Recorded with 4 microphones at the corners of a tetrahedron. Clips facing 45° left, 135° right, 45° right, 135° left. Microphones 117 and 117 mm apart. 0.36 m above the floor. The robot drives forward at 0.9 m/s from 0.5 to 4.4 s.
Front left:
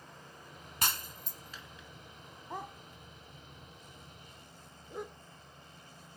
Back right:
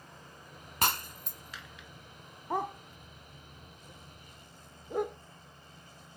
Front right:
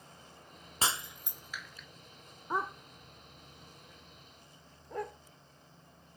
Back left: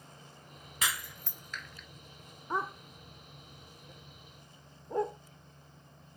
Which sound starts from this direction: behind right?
A dog barking, at 2.5 s.